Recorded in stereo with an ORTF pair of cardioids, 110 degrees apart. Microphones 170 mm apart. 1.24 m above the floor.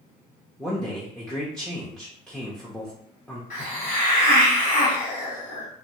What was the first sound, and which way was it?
A man speaking, 5° left.